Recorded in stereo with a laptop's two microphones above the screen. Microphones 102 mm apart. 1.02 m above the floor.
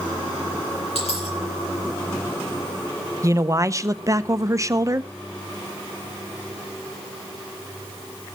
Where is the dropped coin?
80° left, 9.5 m.